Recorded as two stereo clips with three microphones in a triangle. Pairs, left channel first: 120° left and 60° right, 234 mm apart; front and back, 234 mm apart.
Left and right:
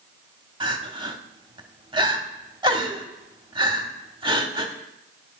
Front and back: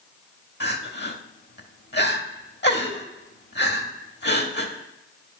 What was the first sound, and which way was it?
Crying, straight ahead.